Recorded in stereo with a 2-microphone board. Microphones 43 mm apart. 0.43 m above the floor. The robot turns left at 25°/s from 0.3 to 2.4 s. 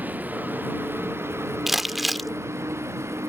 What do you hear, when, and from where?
0.0 s a vehicle: 40° right; by 3.3 s 95° right
1.7 s crumpling: 5° right (ahead or behind); by 2.3 s centre (ahead or behind)